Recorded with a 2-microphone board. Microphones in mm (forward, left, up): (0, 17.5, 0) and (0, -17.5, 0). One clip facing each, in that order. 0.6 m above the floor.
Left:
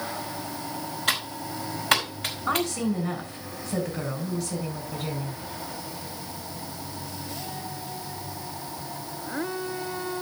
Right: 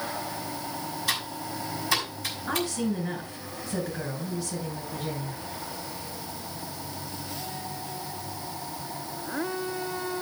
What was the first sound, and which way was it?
Typing on a keyboard, 65° left (ahead or behind).